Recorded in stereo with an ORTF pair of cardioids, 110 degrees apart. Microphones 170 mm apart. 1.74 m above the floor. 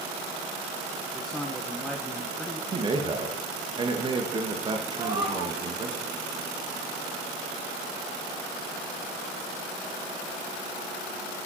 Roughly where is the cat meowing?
Ahead.